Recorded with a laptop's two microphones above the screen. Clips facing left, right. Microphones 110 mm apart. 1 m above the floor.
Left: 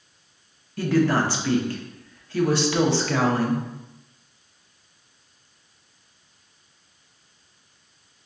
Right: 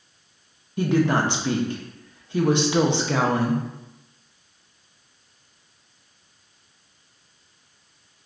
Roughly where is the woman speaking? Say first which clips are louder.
Even; right.